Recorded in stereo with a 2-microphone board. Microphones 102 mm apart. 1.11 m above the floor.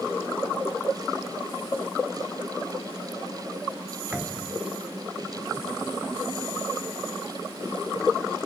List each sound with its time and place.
4.1 s a thud: 10° right (ahead or behind)